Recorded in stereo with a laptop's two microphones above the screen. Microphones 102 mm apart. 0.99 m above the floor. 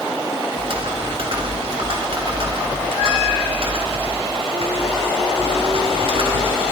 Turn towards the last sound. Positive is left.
turn(degrees=-60)  # may be behind; listen again after turning